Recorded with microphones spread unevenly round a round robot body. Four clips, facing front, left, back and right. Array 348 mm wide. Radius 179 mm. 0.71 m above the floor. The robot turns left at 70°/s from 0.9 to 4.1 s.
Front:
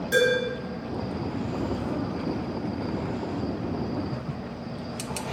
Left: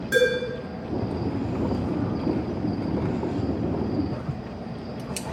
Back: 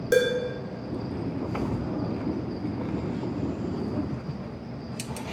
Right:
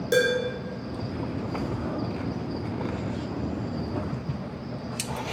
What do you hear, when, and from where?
0.1 s dishes clattering: 175° right, 0.7 m